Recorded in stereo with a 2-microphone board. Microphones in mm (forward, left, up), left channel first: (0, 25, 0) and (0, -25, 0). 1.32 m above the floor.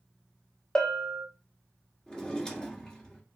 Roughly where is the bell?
Centre.